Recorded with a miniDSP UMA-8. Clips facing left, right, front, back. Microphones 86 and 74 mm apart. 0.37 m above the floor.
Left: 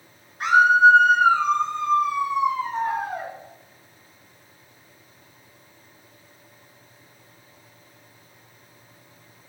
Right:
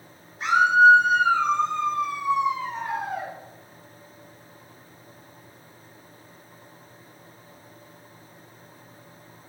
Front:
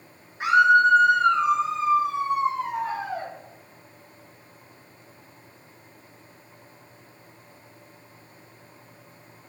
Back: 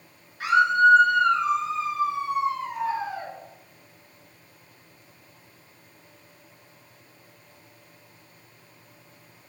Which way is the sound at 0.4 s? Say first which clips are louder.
Left 2 dB, front 2 dB; 70° left.